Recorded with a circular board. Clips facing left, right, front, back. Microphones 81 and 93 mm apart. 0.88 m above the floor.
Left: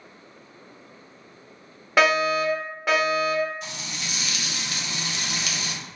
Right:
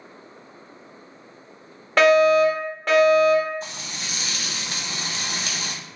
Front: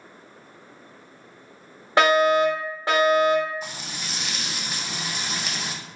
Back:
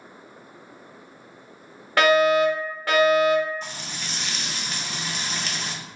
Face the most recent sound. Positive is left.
turn(degrees=-85)